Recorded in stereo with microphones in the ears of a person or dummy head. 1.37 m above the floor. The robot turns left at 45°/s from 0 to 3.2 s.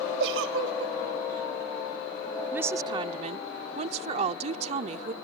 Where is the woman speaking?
10° right; by 5.1 s 45° right.